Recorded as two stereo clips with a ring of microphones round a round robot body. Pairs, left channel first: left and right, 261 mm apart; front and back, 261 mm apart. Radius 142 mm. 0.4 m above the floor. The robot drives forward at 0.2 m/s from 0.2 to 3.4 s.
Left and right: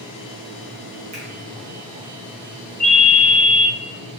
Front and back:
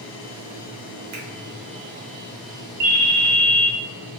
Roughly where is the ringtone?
Behind.